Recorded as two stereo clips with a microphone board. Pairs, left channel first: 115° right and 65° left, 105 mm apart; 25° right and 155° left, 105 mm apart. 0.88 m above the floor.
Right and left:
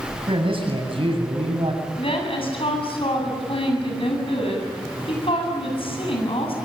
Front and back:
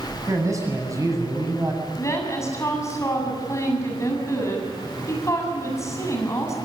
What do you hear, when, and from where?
0.3 s a man speaking: 100° left, 7.5 m
2.0 s a woman speaking: 85° right, 7.5 m